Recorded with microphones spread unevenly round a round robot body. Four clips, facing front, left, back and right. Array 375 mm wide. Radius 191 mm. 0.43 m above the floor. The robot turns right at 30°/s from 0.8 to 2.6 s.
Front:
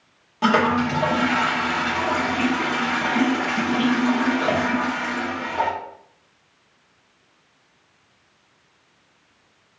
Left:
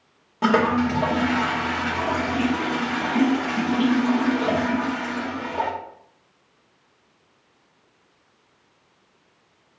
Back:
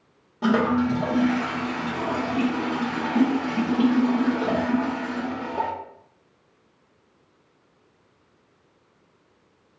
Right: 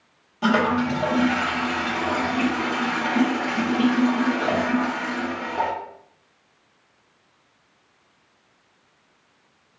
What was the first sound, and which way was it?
A toilet flushing, 105° left.